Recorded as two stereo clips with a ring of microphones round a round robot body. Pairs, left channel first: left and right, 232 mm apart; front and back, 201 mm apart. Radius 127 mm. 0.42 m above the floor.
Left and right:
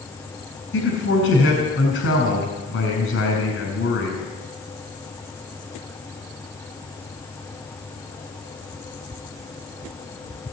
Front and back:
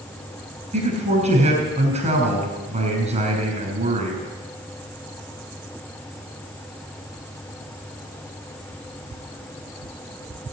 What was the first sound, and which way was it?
A man speaking, 125° left.